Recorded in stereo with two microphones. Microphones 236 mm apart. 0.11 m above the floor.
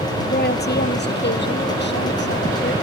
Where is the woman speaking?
45° left (ahead or behind).